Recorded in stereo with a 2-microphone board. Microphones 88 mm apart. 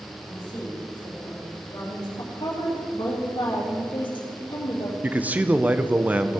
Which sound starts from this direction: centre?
A man speaking, at 5.0 s.